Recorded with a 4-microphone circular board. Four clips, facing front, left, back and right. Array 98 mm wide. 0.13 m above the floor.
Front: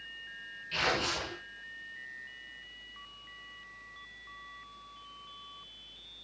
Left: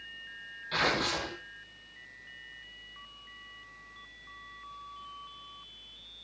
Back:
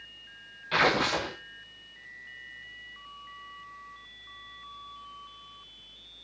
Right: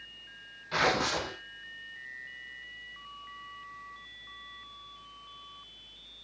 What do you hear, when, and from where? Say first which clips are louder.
0.7 s tearing paper: right 2 dB, back 7 dB; 165° right, 6 m